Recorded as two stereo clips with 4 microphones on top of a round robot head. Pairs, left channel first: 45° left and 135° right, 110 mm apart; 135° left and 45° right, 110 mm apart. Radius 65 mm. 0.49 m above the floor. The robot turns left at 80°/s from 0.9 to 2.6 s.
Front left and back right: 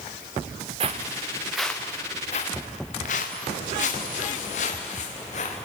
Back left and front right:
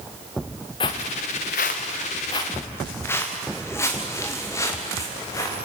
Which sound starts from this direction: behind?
Footsteps, at 0.8 s.